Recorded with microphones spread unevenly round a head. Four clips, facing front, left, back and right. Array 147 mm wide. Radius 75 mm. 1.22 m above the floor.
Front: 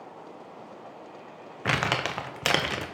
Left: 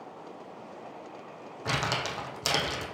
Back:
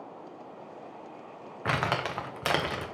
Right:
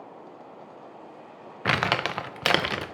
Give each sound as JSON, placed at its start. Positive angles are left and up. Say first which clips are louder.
{"t": 1.6, "sound": "crumpling", "louder": "right 6 dB, front 1 dB", "azimuth_deg": -60, "distance_m": 0.6}